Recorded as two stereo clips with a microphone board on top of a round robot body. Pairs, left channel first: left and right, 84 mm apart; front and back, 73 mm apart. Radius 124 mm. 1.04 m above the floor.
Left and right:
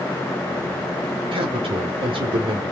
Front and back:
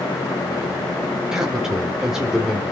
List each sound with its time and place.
1.3 s a man speaking: 95° right, 3.5 m